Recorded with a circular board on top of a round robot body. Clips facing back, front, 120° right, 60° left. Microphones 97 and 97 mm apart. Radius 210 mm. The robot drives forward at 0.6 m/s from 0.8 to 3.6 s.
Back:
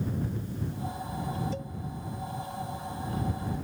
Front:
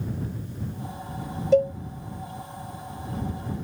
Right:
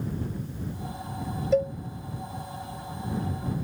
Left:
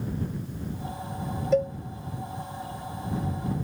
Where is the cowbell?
30° right; by 1.7 s 35° right.